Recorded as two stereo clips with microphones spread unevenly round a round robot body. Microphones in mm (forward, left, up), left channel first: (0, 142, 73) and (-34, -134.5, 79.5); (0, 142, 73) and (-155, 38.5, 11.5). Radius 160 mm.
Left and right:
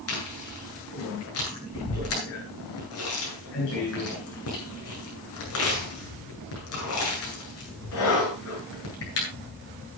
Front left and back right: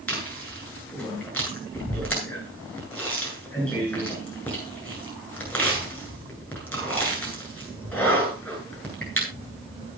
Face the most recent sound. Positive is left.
turn(degrees=120)